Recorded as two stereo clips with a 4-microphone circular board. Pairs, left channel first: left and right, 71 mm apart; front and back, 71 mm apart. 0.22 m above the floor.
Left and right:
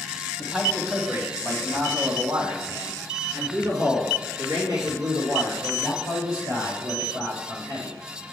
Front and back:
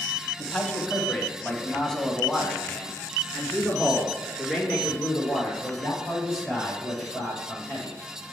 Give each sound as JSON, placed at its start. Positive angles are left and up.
{"t": 0.4, "sound": "a man speaking", "azimuth_deg": -15, "distance_m": 1.0}